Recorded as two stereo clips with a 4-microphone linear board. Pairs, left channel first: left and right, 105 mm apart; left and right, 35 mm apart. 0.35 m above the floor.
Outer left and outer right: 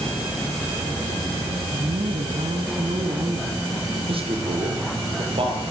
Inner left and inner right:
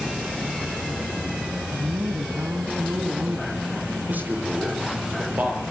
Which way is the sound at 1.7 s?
65° right (ahead or behind).